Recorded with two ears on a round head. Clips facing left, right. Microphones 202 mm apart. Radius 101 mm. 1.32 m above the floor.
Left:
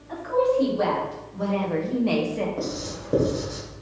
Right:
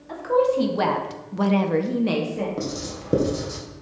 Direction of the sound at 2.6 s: 35° right (ahead or behind).